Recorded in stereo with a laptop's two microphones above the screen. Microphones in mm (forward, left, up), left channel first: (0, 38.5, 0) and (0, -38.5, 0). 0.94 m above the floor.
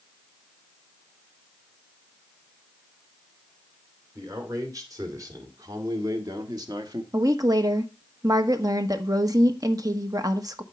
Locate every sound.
4.2 s a man speaking: 45° right (ahead or behind), 3 m; by 7.0 s 60° right (ahead or behind), 1.5 m
7.1 s a woman speaking: 50° right (ahead or behind), 1.3 m